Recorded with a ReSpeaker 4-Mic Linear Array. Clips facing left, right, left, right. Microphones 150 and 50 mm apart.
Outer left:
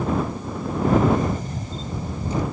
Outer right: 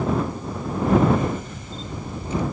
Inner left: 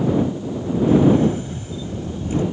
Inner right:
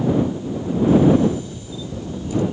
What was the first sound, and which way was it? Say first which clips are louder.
A camera shutter: outer right 1 dB, even; 40° left (ahead or behind).